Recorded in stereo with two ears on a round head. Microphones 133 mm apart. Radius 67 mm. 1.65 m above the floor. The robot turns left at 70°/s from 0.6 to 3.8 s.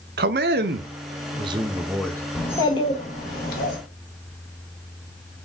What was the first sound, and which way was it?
A man speaking, 85° right.